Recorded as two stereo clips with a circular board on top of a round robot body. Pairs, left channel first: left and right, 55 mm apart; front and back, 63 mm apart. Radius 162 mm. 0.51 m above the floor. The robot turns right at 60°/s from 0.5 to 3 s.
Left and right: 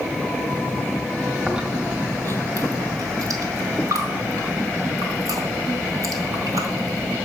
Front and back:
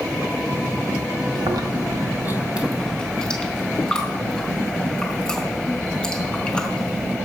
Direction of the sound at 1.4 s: 175° right.